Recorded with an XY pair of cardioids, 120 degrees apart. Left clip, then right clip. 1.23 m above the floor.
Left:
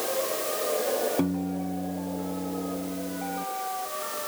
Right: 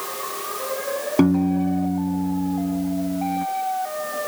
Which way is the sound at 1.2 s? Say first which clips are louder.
Right 10 dB; 55° right.